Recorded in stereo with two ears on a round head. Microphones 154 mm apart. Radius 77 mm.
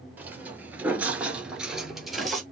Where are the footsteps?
10° right (ahead or behind), 1.5 m; by 2.4 s centre (ahead or behind), 1.6 m.